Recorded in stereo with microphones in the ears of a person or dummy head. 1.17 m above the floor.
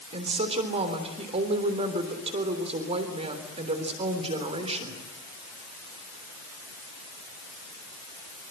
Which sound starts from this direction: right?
A woman speaking, at 0.1 s.